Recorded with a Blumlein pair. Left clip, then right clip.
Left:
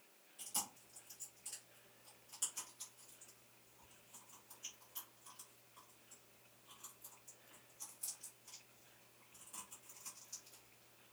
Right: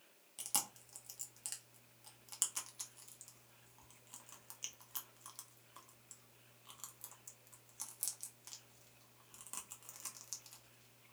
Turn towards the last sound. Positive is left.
turn(degrees=-40)